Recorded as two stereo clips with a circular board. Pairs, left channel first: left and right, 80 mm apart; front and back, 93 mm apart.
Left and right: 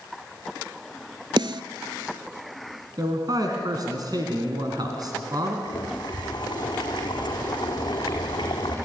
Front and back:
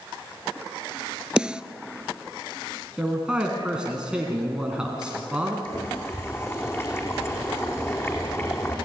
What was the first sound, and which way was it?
A snare drum, 100° right.